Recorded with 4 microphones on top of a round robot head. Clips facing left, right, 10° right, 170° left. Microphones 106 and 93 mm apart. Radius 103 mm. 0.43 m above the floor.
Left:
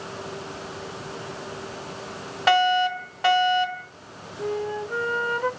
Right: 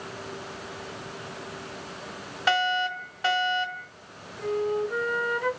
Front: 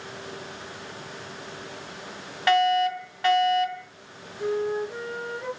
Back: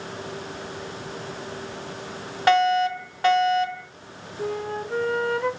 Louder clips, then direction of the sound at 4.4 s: Right 1 dB, front 3 dB; 145° left.